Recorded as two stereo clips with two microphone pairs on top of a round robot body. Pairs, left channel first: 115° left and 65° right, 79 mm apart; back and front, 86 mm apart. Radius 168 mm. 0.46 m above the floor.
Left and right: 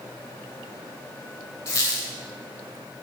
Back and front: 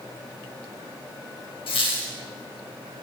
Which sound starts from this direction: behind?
A squeak, at 1.7 s.